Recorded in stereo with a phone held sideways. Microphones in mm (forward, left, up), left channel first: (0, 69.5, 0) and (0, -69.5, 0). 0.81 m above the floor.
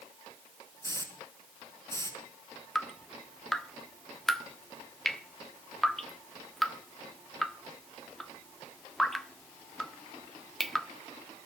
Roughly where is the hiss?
Left.